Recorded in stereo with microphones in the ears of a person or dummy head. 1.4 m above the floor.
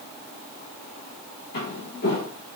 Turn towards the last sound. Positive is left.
turn(degrees=55)  # may be behind; listen again after turning